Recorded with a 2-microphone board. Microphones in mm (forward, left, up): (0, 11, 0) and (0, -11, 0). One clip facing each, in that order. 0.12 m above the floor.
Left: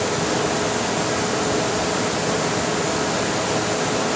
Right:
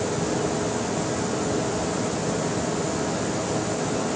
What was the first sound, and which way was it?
Only background noise.